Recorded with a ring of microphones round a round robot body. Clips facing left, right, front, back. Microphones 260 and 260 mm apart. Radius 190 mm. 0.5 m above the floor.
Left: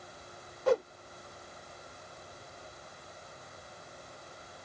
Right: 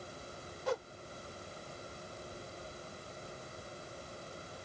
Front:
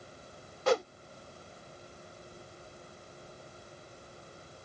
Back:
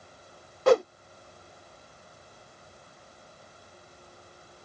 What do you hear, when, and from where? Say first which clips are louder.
0.7 s a whoosh: left 9 dB, back 8 dB; 135° left